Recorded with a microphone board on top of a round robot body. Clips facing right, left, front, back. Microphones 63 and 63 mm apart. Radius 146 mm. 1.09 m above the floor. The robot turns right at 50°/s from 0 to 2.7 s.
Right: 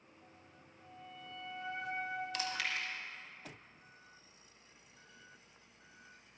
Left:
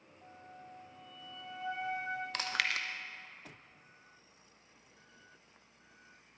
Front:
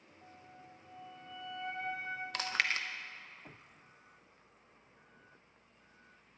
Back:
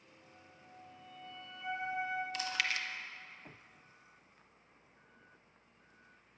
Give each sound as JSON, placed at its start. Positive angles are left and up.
{"t": 0.2, "sound": "a flute", "azimuth_deg": 15, "distance_m": 1.9}
{"t": 2.3, "sound": "chewing", "azimuth_deg": 40, "distance_m": 0.8}